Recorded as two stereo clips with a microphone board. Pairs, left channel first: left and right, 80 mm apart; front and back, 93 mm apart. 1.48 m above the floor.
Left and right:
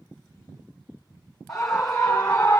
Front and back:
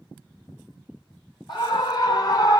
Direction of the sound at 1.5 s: 5° left.